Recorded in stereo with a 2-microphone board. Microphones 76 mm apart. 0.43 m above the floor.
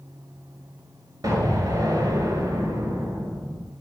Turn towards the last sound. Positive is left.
turn(degrees=-60)  # may be behind; listen again after turning